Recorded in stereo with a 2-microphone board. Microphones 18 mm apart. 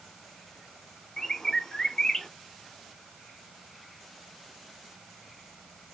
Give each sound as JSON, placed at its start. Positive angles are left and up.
{"t": 1.2, "sound": "a bird", "side_deg": 30, "distance_m": 0.8}